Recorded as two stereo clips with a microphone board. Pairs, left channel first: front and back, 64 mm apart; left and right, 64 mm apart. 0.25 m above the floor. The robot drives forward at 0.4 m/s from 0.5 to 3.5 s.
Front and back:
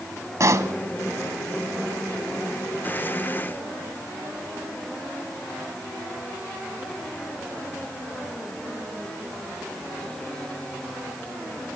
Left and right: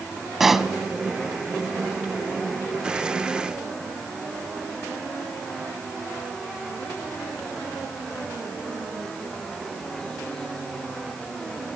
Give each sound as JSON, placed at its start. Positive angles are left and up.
{"t": 0.4, "sound": "a pop", "azimuth_deg": -175, "distance_m": 1.2}